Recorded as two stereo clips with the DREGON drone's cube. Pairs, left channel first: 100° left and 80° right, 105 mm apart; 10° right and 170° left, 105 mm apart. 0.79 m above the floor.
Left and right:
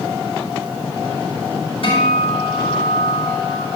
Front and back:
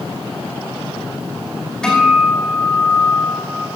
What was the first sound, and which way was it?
A guitar, 75° left.